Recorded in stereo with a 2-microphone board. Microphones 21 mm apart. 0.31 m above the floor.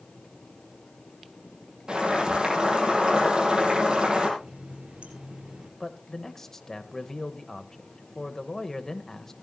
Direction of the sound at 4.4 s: 75° right (ahead or behind).